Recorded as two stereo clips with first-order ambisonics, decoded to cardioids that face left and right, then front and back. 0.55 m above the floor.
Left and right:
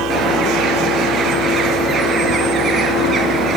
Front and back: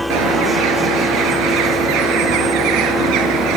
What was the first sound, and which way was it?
A bird, 155° right.